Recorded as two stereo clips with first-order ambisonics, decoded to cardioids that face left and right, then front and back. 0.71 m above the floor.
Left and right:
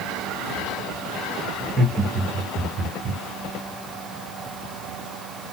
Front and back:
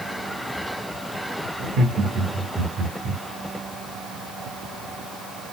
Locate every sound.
1.6 s laughter: 170° right, 1.3 m